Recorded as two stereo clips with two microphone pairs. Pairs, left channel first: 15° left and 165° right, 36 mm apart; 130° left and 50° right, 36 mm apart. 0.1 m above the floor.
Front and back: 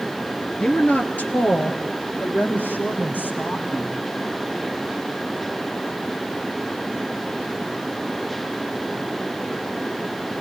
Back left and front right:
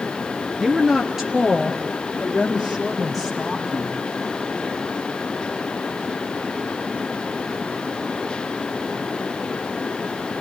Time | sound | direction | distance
0.6 | a woman speaking | 10° left | 1.5 m